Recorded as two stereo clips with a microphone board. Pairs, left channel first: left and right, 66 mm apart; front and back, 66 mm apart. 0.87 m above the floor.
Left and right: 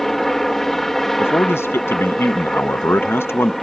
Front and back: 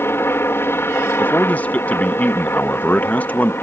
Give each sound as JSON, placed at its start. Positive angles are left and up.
{"t": 0.0, "sound": "a helicopter", "azimuth_deg": 5}
{"t": 1.2, "sound": "a man speaking", "azimuth_deg": 55}